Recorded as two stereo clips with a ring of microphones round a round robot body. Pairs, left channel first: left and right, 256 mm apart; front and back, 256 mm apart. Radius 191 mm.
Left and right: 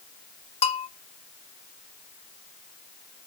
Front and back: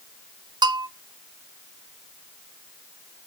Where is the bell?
125° left, 0.8 m.